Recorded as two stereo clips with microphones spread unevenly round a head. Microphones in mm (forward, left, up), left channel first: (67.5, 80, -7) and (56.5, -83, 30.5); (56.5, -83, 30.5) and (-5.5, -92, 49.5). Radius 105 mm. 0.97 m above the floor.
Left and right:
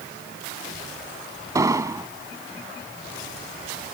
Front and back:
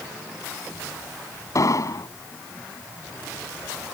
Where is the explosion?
25° right.